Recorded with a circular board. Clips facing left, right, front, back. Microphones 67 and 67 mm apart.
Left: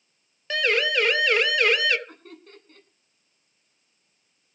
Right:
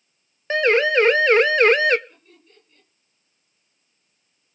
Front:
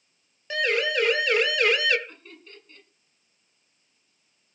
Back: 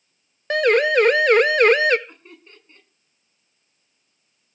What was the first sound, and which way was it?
A siren, 150° right.